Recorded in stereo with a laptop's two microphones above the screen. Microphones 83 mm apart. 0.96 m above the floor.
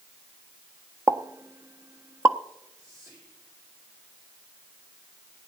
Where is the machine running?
No machine running in this recording.